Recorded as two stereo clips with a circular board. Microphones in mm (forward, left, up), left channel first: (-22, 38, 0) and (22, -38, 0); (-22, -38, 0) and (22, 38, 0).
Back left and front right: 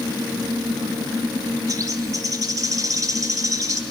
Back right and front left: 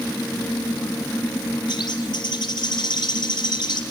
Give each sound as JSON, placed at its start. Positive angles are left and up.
{"t": 1.7, "sound": "a bird", "azimuth_deg": -105, "distance_m": 1.5}